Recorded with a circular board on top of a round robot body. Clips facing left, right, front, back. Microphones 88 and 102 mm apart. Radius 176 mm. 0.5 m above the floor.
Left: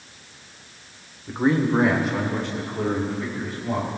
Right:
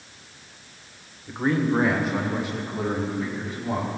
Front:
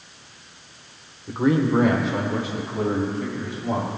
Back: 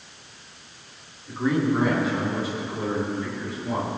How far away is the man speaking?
About 2.5 m.